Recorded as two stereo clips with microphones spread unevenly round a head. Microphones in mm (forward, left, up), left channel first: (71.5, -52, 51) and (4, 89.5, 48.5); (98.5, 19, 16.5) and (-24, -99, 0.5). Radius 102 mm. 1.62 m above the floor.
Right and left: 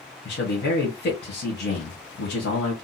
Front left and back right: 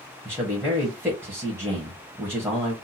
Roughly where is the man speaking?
Ahead right.